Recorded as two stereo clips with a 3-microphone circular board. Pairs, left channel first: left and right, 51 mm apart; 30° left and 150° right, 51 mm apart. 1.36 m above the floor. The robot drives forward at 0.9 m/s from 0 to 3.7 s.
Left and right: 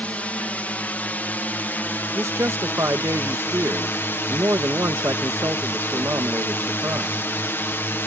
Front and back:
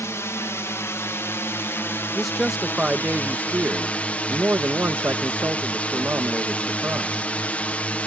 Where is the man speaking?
55° right; by 7.3 s 105° right.